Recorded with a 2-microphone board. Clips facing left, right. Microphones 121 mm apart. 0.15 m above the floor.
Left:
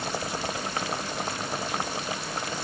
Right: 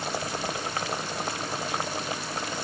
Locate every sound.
Only background noise.